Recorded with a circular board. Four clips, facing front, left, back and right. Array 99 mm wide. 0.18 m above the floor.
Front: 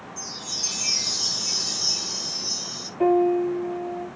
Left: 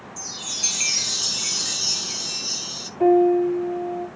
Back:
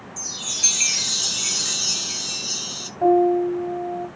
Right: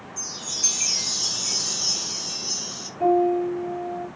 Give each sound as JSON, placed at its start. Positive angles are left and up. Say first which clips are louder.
{"t": 0.2, "sound": "a chime", "louder": "even, back 1 dB", "azimuth_deg": 155, "distance_m": 1.3}
{"t": 3.0, "sound": "a piano", "louder": "left 4 dB, back 3 dB", "azimuth_deg": 20, "distance_m": 5.0}